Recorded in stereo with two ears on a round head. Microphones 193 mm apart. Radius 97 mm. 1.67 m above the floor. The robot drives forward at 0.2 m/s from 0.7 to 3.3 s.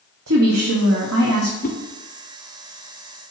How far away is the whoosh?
About 0.9 m.